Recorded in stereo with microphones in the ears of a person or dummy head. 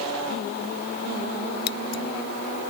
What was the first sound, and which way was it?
Scissors, 65° left (ahead or behind).